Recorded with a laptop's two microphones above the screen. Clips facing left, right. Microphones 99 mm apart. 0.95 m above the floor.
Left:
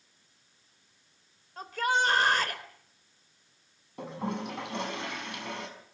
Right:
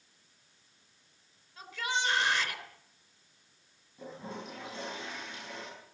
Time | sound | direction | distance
1.6 | a shout | 50° left (ahead or behind) | 3.5 m
4.0 | a toilet flushing | 75° left (ahead or behind) | 5.5 m